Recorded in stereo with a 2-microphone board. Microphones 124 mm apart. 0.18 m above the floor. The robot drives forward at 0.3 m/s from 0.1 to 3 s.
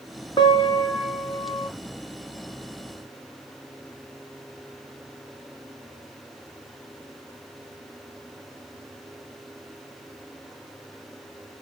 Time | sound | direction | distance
0.4 | a piano | 40° left (ahead or behind) | 1.8 m